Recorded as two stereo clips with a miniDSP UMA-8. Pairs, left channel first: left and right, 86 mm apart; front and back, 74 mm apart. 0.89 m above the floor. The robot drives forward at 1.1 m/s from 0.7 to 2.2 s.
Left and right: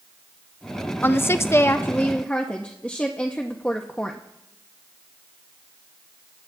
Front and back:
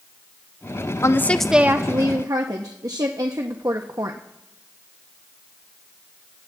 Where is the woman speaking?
30° left, 0.7 m; by 4.2 s 160° left, 1.0 m.